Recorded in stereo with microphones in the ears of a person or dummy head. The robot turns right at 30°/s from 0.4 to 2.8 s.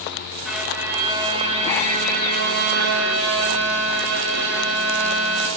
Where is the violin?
Straight behind, 3 m; by 5.5 s 110° right, 3 m.